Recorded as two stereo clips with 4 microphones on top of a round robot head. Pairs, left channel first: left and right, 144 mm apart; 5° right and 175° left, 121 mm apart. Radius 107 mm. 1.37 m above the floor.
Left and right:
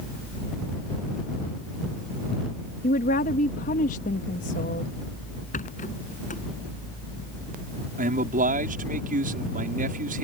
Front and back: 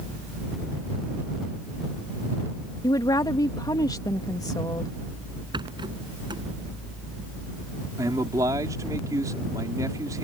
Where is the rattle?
120° left.